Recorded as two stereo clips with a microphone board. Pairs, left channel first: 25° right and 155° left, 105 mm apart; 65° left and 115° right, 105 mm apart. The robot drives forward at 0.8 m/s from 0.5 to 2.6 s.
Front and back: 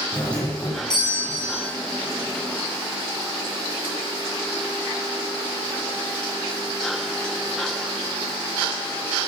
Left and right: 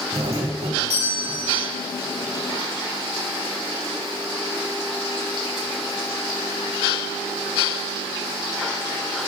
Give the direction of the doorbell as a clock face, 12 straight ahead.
3 o'clock.